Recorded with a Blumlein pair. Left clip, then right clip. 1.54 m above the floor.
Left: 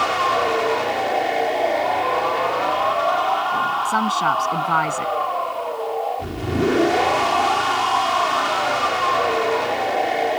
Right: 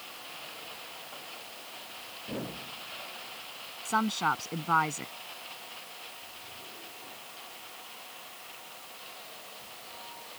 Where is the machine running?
45° left.